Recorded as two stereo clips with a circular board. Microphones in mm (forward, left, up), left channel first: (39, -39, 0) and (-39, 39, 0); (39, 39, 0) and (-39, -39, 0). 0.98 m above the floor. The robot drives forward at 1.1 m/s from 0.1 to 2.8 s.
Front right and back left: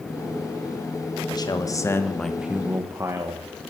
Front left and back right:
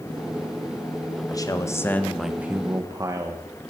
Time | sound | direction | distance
1.3 | a man speaking | 5° right | 1.3 m